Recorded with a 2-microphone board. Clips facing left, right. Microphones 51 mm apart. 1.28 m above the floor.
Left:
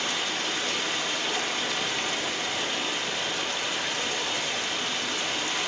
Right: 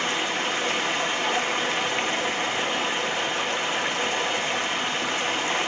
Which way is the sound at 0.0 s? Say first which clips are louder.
Right 4 dB; 30° right (ahead or behind).